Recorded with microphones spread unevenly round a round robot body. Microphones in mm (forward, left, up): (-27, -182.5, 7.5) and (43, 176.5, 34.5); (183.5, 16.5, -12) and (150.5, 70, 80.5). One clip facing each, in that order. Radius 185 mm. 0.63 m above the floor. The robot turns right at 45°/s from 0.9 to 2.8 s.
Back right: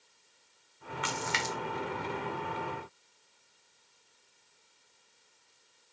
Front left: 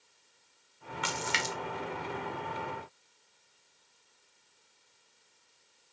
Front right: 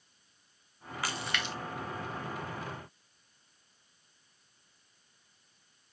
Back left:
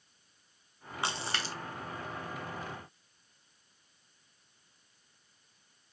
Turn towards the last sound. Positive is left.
turn(degrees=145)